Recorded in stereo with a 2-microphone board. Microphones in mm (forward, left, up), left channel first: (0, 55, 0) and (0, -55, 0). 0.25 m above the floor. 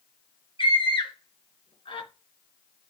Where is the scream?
50° left (ahead or behind), 2.5 m.